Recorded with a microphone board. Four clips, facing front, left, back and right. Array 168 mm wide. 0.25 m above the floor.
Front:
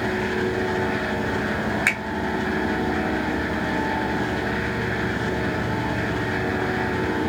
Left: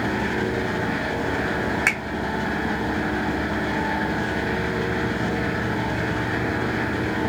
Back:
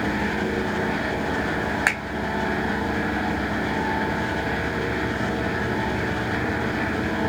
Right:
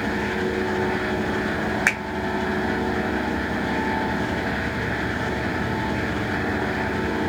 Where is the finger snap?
150° right, 1.3 m.